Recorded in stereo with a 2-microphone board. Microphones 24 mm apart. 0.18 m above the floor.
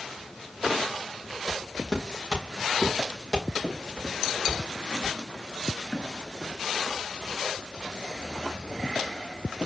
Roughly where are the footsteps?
Centre.